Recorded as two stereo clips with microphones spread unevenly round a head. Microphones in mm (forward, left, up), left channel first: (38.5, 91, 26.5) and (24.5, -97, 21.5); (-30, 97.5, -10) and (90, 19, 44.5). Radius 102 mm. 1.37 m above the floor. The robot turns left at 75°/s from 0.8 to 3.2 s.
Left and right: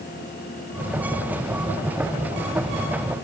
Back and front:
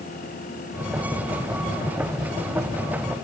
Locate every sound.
Only background noise.